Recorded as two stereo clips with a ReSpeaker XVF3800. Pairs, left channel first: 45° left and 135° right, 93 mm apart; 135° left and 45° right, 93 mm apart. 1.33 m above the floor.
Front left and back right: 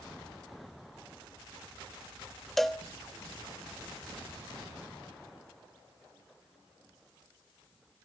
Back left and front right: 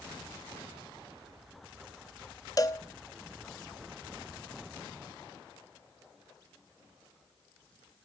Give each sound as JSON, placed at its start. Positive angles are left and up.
{"t": 2.6, "sound": "a cowbell", "azimuth_deg": 130, "distance_m": 0.9}